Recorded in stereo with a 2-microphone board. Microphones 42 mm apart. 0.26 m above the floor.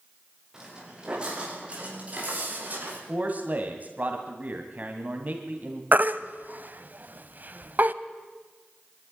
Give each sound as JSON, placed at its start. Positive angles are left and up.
{"t": 0.5, "sound": "footsteps", "side_deg": -15, "distance_m": 7.0}
{"t": 3.1, "sound": "a man speaking", "side_deg": -40, "distance_m": 2.5}
{"t": 5.9, "sound": "a baby crying", "side_deg": -45, "distance_m": 0.7}